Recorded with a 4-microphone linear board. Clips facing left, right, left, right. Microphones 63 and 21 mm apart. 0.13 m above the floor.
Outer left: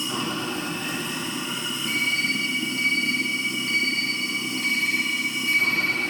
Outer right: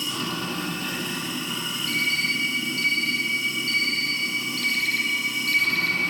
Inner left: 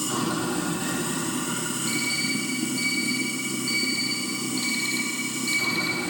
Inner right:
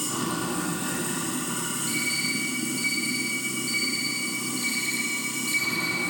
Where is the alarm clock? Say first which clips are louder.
Even, inner left 1 dB; 25° left (ahead or behind), 2 m.